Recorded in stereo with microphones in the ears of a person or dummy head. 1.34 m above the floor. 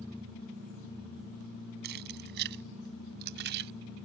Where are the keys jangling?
55° right (ahead or behind).